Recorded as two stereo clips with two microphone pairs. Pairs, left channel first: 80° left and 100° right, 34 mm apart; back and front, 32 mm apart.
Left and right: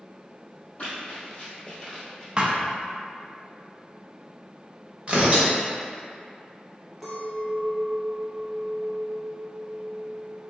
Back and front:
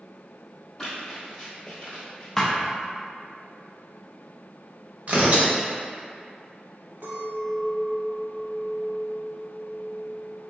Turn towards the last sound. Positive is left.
turn(degrees=-10)